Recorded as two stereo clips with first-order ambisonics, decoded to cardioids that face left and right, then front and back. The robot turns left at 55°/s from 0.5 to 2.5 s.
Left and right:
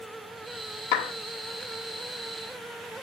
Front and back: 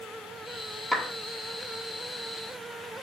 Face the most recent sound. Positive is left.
turn(degrees=0)